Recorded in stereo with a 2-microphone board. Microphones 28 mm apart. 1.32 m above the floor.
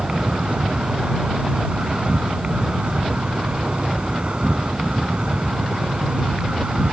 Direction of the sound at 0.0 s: 45° right (ahead or behind).